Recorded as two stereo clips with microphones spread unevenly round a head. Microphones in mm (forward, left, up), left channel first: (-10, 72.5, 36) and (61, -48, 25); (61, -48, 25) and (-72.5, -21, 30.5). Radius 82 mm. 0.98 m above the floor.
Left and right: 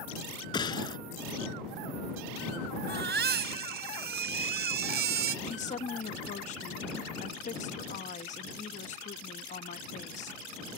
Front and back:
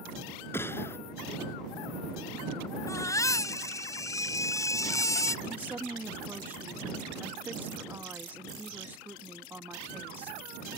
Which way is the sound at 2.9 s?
75° right.